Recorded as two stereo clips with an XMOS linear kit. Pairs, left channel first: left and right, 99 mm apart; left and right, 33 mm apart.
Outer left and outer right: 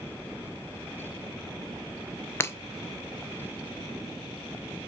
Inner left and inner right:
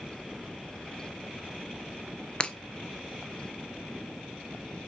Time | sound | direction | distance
2.4 | breaking glass | 25° left (ahead or behind) | 0.5 m